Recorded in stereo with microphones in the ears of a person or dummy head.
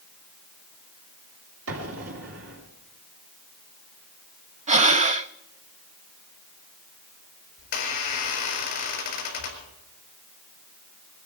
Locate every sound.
1.7 s an explosion: 75° right (ahead or behind), 2.5 m
4.7 s breathing: 30° right (ahead or behind), 0.5 m
7.6 s a squeak: 45° left (ahead or behind), 4.5 m